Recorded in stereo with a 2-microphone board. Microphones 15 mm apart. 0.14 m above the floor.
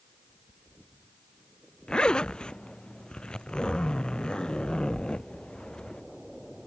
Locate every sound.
1.9 s a zipper: 60° left (ahead or behind)